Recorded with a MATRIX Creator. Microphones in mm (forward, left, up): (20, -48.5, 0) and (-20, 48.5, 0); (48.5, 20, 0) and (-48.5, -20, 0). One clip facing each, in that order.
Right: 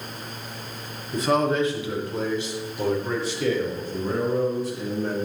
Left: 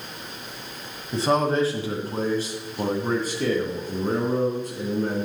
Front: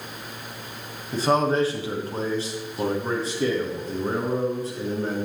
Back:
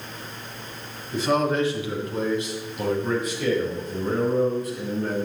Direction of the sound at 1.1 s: 60° left.